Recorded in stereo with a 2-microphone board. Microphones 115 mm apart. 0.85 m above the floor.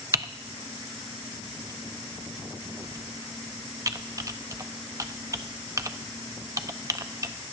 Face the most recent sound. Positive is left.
turn(degrees=-30)  # may be behind; listen again after turning